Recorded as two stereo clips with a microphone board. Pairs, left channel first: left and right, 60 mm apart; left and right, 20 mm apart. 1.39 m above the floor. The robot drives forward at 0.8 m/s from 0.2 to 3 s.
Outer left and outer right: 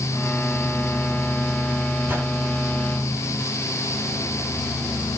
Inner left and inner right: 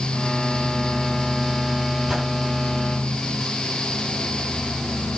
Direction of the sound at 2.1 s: 35° right (ahead or behind).